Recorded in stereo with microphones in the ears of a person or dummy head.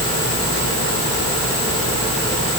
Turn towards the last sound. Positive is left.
No sound to turn to.